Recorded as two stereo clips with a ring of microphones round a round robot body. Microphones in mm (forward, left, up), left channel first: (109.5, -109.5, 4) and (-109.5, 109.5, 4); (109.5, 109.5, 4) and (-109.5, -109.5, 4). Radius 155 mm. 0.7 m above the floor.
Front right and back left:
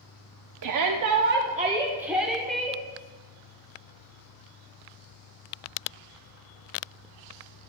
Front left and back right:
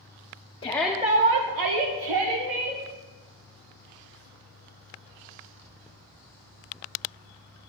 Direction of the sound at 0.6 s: 115° left.